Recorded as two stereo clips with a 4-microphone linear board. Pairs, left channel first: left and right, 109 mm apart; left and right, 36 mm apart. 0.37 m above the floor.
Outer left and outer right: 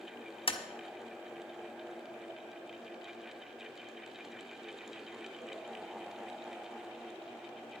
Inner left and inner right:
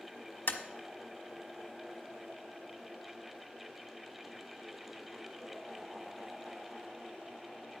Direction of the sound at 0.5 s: 60° left (ahead or behind).